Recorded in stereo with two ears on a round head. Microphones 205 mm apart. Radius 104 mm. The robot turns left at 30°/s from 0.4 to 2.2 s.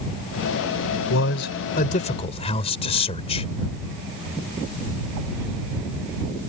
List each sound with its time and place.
1.1 s a man speaking: 60° left; by 3.5 s 25° left